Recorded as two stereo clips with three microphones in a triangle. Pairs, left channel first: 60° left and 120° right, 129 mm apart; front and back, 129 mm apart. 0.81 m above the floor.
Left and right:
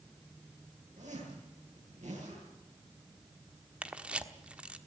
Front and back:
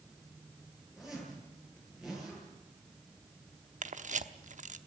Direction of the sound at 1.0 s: 95° right.